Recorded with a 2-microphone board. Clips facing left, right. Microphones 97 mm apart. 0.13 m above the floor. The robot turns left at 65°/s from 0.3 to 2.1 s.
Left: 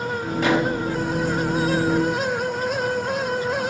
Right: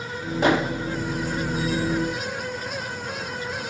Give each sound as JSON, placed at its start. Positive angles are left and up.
{"t": 0.4, "sound": "a microwave", "side_deg": -25, "distance_m": 2.5}